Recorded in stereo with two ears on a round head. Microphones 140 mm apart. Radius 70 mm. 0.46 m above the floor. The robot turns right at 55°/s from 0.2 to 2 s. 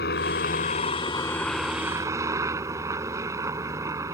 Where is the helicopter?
100° left; by 4.2 s 160° right.